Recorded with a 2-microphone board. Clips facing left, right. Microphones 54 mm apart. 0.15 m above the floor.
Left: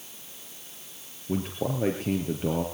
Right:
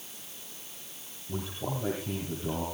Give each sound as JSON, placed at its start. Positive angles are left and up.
{"t": 1.3, "sound": "a man speaking", "side_deg": 60, "distance_m": 3.0}